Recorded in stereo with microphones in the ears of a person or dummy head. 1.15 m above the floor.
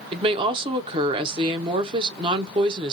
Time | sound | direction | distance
0.1 | a woman speaking | 30° right (ahead or behind) | 0.7 m